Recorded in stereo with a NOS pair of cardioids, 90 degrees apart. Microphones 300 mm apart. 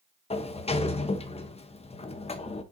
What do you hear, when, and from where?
0.3 s a sliding door: 20° left, 1.0 m